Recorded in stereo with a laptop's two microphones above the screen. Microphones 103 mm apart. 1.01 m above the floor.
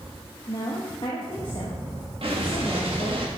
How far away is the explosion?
About 1.7 m.